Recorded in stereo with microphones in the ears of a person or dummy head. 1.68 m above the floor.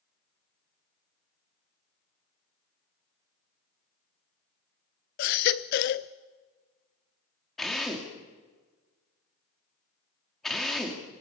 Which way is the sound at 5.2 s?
45° left (ahead or behind).